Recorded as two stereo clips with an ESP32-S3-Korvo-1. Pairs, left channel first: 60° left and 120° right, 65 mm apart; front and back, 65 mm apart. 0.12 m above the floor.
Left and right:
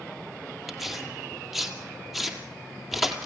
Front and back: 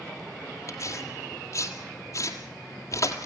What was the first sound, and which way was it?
Tearing paper, 30° right.